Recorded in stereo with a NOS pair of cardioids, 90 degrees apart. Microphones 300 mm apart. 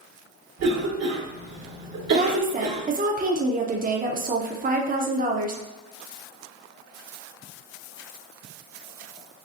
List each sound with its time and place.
0.6 s a cough: 55° right, 1.1 m
2.1 s a woman speaking: 25° right, 0.7 m